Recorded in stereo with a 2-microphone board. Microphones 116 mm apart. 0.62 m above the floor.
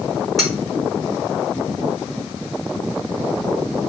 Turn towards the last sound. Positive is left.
turn(degrees=0)  # may be behind; listen again after turning